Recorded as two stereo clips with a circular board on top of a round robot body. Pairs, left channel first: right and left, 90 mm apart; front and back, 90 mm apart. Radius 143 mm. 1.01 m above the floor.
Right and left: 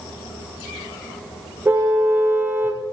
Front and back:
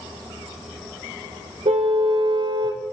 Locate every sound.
1.6 s a car horn: 160° left, 2 m